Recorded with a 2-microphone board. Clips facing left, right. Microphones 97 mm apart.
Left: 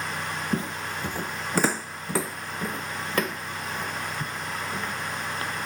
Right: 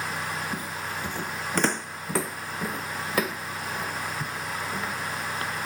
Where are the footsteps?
35° left (ahead or behind); by 4.9 s 10° right (ahead or behind).